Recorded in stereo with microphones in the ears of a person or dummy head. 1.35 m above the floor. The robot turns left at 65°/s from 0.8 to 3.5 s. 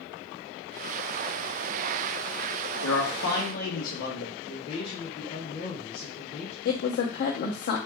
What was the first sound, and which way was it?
A man speaking, 90° left.